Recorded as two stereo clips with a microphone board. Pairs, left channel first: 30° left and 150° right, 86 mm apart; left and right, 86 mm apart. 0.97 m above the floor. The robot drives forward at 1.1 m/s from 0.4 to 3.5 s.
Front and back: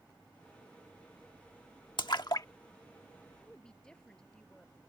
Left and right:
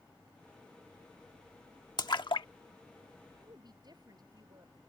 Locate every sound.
2.0 s a splash: 50° left; by 2.5 s 75° left
3.4 s a woman speaking: 50° right